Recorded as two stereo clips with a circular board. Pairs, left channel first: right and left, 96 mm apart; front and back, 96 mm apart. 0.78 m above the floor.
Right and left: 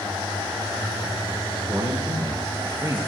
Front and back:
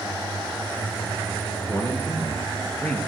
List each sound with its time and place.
1.7 s a man speaking: 40° left, 1.6 m; by 3.0 s 75° left, 0.9 m